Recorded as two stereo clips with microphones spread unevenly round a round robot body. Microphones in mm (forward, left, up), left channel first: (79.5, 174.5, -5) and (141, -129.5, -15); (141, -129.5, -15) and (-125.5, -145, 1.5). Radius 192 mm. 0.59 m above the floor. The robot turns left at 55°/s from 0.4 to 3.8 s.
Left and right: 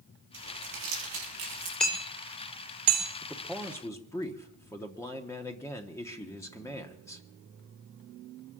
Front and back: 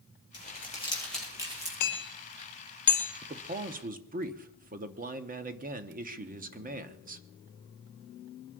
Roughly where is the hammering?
Ahead.